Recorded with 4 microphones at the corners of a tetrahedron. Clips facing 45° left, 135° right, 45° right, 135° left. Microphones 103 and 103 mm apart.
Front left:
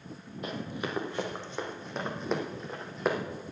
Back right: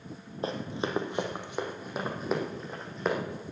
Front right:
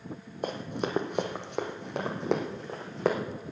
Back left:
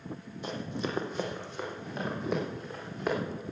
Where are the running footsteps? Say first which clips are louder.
Back right 3 dB, front right 3 dB; 80° right, 1.6 m; by 3.2 s 40° right, 2.5 m.